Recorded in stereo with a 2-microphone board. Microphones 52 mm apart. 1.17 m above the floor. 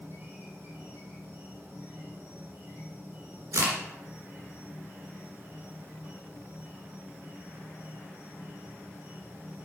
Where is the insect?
50° right (ahead or behind), 3 m.